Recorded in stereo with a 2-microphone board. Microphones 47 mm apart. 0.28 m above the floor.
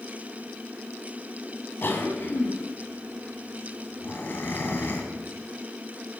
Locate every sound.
1.8 s a cough: 50° left (ahead or behind), 2.5 m